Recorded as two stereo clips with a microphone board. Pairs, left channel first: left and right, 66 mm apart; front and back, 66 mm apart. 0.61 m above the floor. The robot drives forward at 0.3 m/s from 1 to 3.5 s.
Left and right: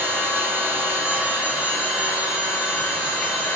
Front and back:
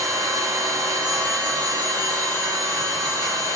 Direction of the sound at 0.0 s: 155° right.